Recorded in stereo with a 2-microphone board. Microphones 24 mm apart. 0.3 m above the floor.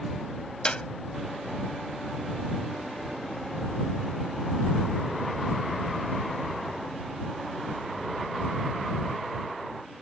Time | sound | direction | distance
0.7 | a clap | 45° left (ahead or behind) | ?